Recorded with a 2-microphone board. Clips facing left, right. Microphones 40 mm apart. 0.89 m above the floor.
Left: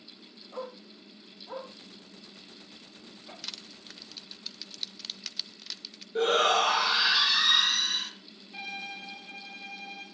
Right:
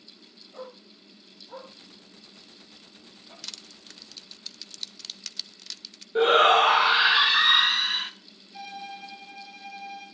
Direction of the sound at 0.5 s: 75° left (ahead or behind).